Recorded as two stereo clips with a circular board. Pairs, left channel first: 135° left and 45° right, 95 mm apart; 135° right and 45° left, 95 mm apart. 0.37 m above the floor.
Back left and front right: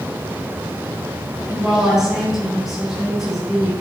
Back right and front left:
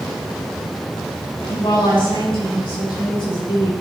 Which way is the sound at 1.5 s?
130° right.